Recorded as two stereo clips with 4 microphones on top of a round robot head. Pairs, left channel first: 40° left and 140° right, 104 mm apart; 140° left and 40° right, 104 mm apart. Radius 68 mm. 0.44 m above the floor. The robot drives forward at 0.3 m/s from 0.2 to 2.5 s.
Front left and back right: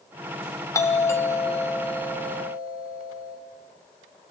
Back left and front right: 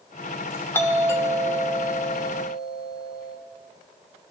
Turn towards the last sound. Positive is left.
turn(degrees=105)